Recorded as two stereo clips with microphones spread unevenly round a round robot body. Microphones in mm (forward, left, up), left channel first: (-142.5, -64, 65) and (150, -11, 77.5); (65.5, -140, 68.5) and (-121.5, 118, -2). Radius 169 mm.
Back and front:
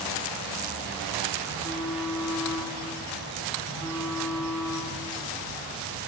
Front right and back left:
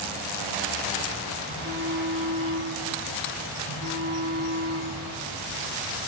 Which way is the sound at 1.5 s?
140° left.